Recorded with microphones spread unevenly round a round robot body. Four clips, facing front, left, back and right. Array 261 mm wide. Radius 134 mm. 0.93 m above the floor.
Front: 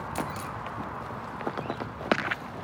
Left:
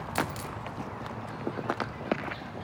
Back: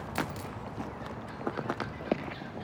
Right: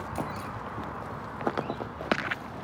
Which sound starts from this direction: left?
A dropped coin, at 0.1 s.